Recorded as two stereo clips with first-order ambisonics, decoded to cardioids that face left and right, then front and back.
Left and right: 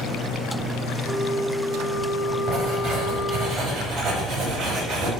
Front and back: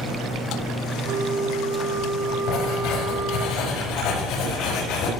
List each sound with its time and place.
1.0 s a flute: 170° left, 7 m
2.5 s writing: 35° right, 8 m